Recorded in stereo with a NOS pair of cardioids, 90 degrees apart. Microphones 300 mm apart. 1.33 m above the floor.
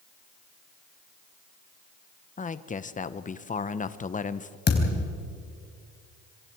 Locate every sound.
2.4 s a man speaking: 25° left, 1.1 m
4.7 s a thud: 35° left, 4 m